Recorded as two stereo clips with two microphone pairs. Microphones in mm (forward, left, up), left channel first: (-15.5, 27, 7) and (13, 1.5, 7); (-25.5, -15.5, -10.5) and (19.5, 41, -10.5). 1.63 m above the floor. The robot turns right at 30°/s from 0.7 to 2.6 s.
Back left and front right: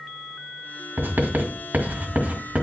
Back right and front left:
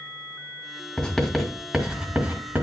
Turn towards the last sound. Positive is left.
turn(degrees=0)